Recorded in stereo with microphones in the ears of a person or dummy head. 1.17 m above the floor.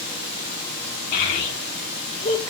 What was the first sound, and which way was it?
A child speaking, 45° left (ahead or behind).